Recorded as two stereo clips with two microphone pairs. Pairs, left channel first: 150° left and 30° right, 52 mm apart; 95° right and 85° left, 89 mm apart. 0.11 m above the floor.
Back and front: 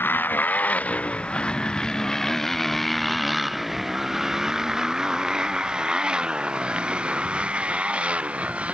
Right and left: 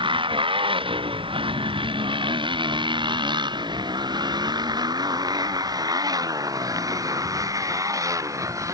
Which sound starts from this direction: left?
A motorcycle, at 0.0 s.